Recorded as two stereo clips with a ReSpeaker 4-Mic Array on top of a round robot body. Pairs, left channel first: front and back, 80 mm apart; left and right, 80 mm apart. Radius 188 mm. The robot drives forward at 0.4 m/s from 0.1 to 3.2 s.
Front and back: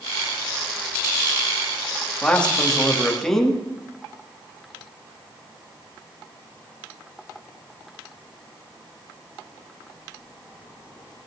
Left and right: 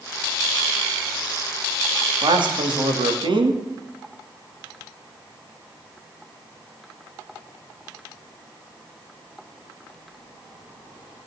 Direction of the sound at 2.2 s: 75° right.